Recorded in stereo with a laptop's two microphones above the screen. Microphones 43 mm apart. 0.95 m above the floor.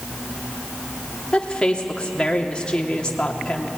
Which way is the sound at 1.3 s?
25° left (ahead or behind).